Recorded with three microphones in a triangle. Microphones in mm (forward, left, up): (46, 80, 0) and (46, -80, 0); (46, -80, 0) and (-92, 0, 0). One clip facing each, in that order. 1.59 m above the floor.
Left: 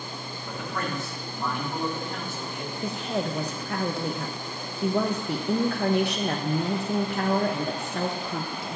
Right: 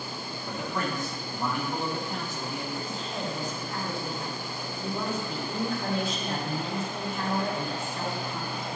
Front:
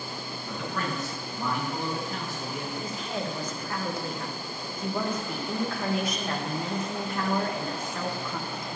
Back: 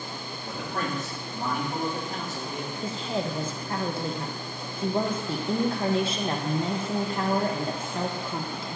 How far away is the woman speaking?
About 0.9 m.